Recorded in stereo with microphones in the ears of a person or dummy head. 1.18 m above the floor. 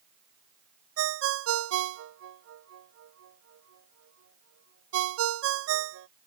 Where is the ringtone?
75° right (ahead or behind).